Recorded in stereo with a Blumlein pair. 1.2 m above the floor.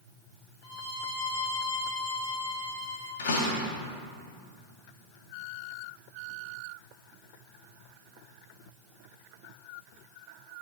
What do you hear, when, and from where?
0.6 s a violin: 50° left, 2.5 m
3.2 s a door slam: 55° left, 1.8 m